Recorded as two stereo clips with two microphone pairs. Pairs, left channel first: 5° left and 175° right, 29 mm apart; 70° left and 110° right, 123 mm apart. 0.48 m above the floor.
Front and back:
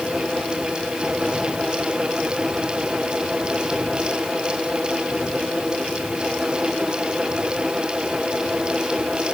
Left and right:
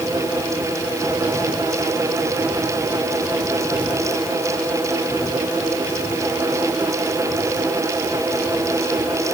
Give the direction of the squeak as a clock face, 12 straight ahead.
I don't hear a squeak.